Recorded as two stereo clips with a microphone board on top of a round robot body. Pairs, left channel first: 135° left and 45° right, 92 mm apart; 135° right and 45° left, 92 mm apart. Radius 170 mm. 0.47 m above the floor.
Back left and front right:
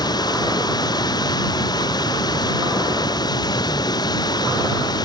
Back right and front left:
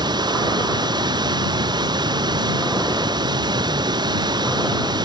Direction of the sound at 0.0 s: 90° left.